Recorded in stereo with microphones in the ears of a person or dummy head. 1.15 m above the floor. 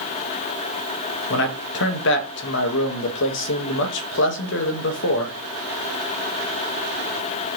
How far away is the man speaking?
About 1.1 m.